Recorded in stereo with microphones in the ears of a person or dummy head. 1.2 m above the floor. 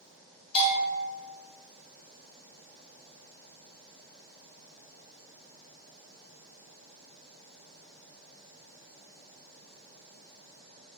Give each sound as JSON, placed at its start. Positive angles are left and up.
{"t": 0.6, "sound": "a bell", "side_deg": 30, "distance_m": 1.0}